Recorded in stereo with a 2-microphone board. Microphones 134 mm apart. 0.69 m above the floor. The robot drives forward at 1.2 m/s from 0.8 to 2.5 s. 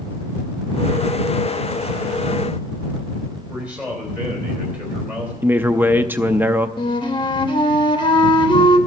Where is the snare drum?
I don't hear a snare drum.